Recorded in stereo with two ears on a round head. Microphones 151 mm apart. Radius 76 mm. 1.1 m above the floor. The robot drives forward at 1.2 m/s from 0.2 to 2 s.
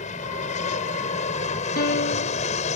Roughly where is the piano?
Left.